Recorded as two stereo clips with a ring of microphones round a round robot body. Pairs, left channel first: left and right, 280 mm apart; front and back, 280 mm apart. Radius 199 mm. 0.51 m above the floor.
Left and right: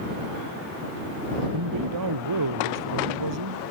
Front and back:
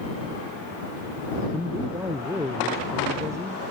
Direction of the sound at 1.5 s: 95° right.